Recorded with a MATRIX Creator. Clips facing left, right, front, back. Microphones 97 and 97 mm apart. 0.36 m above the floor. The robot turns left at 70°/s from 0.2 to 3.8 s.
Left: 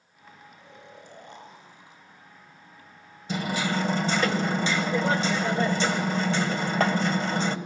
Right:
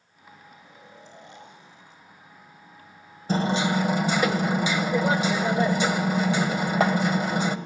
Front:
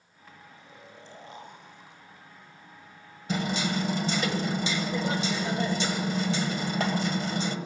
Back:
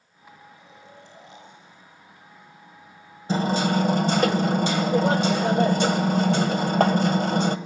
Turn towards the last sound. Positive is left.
turn(degrees=-165)